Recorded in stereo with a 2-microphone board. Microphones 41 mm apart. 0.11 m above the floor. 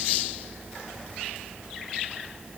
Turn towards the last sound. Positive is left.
No sound to turn to.